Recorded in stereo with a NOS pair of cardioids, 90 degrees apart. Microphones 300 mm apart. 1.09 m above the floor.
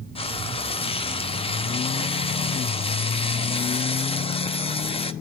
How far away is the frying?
About 0.9 m.